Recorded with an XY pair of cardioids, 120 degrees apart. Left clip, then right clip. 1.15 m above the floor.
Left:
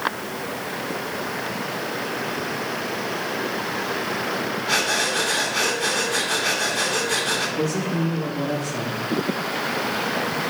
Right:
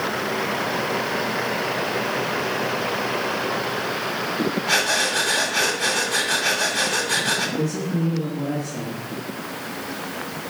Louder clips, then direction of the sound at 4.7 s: Right 1 dB; 15° right.